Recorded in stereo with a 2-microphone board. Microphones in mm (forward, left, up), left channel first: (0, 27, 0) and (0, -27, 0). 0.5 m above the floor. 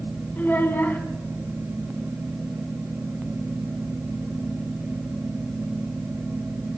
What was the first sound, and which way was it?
A child speaking, 40° left (ahead or behind).